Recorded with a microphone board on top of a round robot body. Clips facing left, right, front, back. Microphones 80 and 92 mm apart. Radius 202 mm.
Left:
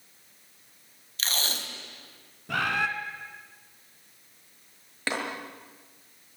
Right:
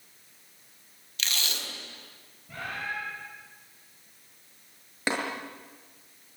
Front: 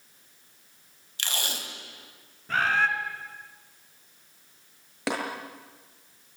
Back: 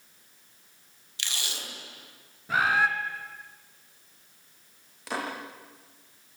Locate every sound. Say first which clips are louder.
1.2 s tape being pulled: left 2 dB, front 4 dB; 40° left, 3.5 m
2.5 s a bird: left 9 dB, back 1 dB; 100° left, 2.5 m
5.1 s tapping: right 2 dB, front 3 dB; 15° right, 7 m